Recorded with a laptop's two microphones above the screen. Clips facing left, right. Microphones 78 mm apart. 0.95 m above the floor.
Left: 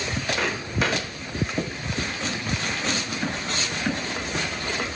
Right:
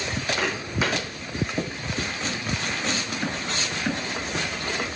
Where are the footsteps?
5° right (ahead or behind), 2 m.